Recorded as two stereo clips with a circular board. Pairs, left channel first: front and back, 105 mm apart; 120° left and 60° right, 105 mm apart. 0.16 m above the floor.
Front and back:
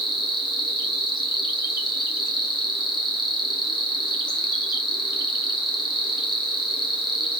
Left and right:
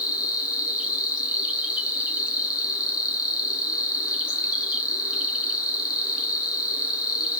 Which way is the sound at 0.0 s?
15° left.